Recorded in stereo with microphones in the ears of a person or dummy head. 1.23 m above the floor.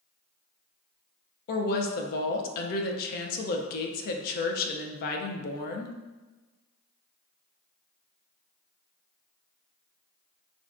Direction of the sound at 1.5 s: 55° left (ahead or behind).